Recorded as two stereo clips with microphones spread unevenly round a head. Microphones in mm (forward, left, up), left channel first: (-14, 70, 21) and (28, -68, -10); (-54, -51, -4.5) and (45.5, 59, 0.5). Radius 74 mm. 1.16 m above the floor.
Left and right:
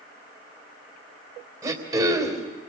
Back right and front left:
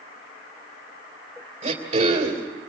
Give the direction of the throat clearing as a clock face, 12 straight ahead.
12 o'clock.